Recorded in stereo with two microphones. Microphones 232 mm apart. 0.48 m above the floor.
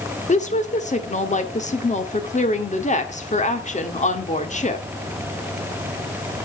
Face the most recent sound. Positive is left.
turn(degrees=30)  # may be behind; listen again after turning